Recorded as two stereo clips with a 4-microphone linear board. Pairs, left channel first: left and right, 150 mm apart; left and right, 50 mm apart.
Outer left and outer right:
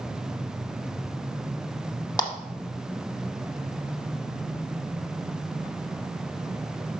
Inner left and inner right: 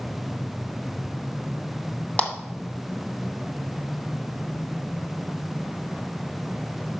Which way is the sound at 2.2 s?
25° left (ahead or behind).